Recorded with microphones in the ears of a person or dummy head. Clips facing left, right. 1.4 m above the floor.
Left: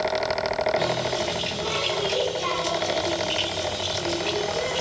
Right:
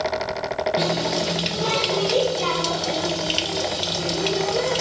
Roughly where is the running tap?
Right.